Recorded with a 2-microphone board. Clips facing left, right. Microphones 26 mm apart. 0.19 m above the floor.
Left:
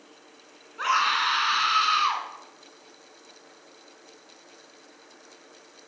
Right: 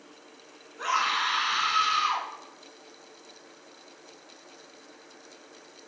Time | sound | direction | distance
0.8 | a scream | 45° left (ahead or behind) | 1.9 m